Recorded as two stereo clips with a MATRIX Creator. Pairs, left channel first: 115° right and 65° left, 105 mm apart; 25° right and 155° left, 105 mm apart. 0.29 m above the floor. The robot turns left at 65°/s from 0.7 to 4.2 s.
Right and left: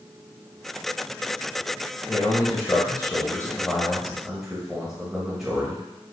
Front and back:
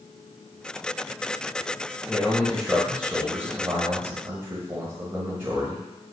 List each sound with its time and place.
2.1 s a man speaking: 70° right, 1.0 m; by 5.8 s 150° left, 1.0 m